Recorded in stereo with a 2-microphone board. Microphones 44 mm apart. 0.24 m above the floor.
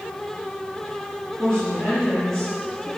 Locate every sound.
1.4 s a woman speaking: 5° left (ahead or behind), 6 m